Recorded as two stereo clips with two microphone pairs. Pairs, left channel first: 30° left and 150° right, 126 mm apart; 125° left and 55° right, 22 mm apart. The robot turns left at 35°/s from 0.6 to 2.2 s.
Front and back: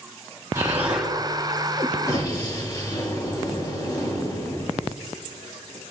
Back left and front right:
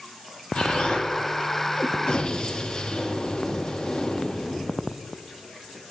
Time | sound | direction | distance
0.6 | an explosion | 145° left | 3 m